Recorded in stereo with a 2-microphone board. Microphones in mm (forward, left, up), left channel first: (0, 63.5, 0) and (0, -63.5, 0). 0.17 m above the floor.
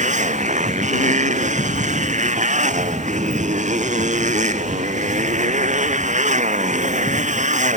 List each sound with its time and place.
0.0 s a motorcycle: 75° right (ahead or behind)